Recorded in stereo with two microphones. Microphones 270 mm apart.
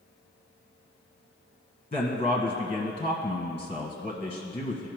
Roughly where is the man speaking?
Left.